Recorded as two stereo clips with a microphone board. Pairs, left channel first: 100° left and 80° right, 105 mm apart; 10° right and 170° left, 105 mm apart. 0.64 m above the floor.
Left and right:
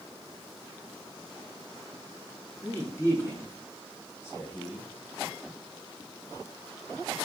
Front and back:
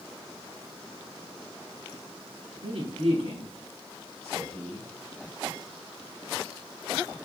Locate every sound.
2.6 s a man speaking: 165° left, 5 m